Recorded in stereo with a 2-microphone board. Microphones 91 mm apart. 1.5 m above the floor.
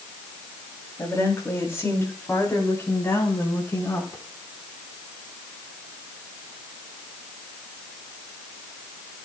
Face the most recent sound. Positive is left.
turn(degrees=25)  # may be behind; listen again after turning